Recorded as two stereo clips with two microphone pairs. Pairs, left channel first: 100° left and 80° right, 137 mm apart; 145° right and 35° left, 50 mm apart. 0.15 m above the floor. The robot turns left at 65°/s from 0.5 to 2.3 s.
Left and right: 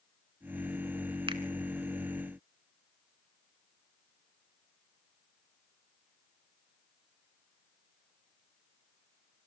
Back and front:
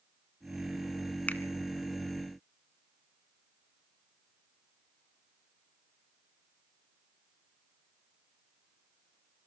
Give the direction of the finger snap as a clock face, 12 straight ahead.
4 o'clock.